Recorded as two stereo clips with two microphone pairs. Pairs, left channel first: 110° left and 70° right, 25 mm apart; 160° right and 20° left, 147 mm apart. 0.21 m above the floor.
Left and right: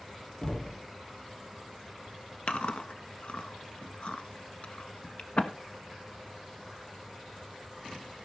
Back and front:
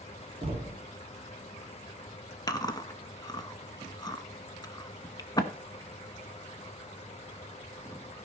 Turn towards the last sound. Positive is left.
turn(degrees=140)